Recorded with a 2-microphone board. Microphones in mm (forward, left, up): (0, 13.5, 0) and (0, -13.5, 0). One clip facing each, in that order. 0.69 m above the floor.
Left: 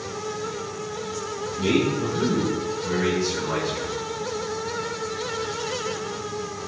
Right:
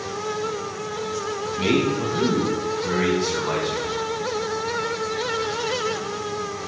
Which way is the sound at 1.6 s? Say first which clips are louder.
Right 1 dB; 80° right.